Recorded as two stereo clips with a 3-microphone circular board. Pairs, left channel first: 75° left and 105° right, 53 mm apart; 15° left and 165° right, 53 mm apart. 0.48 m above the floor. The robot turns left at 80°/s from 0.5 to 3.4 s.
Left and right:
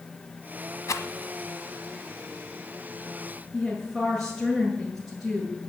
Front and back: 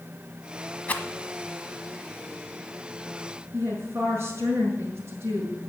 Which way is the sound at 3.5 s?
175° left.